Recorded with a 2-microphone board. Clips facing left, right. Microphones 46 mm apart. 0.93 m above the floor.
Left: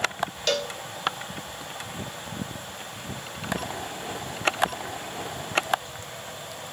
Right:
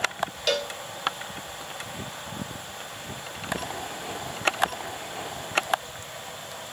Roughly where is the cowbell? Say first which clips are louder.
Even; centre.